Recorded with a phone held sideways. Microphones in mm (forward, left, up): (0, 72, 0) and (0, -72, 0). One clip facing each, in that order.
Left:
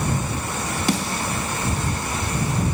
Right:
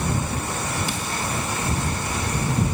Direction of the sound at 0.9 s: 70° left (ahead or behind).